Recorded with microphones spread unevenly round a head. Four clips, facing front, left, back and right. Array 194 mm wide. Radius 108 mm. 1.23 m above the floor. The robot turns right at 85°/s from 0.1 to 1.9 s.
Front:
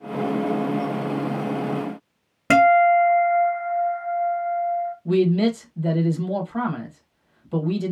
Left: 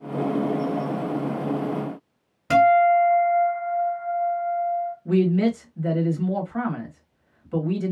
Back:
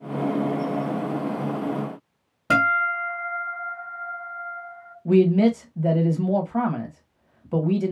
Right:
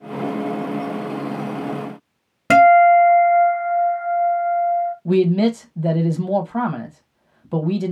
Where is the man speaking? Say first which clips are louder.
Right 3 dB, back 3 dB; 115° right, 1.3 m.